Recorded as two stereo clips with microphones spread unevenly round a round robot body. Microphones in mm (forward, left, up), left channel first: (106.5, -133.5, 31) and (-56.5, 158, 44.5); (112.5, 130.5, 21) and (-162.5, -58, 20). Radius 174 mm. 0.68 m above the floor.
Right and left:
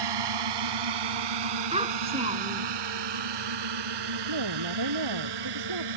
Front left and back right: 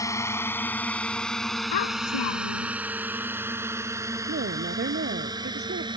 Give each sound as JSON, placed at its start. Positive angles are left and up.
{"t": 0.0, "sound": "a drone", "azimuth_deg": 115}
{"t": 1.7, "sound": "a child speaking", "azimuth_deg": 45}
{"t": 4.3, "sound": "a woman speaking", "azimuth_deg": 155}